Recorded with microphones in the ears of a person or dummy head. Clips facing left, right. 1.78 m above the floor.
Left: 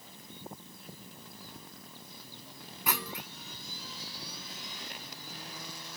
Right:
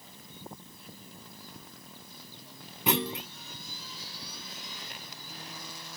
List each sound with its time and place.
2.9 s a clunk: 25° right (ahead or behind)